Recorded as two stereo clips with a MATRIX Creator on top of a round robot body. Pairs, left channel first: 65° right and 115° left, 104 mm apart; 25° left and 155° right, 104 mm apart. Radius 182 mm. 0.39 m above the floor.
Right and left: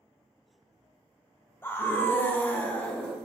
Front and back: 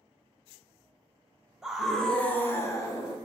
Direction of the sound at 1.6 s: 85° right.